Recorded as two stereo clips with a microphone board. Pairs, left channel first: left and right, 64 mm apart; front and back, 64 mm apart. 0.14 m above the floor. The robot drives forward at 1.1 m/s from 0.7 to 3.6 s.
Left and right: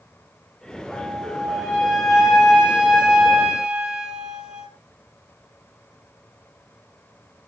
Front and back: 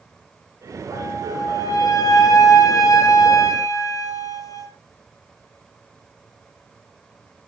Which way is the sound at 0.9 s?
5° right.